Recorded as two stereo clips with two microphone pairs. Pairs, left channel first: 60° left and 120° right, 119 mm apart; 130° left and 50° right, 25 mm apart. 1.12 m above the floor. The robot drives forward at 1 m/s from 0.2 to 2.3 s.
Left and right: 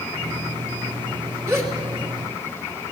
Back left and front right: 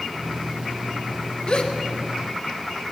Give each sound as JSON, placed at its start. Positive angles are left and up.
{"t": 1.5, "sound": "a gasp", "azimuth_deg": 175, "distance_m": 1.6}